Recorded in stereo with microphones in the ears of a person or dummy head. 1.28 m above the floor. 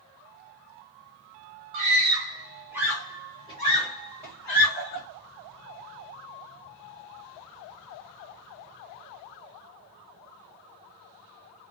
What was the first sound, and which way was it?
A scream, 40° right (ahead or behind).